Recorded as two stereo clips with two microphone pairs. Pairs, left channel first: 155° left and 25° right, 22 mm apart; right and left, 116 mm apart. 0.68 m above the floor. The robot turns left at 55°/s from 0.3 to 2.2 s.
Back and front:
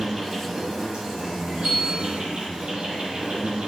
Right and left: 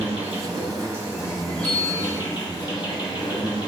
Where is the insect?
60° left, 1.3 m; by 3.7 s 45° right, 1.3 m.